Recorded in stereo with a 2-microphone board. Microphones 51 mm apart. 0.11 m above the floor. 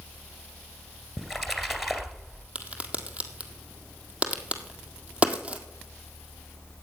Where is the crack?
25° right (ahead or behind), 1.7 m.